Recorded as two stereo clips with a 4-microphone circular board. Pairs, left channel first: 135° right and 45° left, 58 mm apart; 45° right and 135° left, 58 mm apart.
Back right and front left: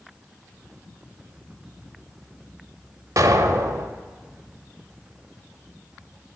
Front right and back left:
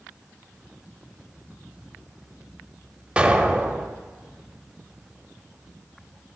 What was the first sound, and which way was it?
An explosion, 65° left.